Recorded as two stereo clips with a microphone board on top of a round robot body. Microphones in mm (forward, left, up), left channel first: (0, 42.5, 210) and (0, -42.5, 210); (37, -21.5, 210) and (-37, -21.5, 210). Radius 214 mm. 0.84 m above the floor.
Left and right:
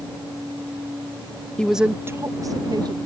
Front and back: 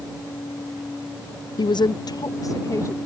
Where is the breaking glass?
No breaking glass in this recording.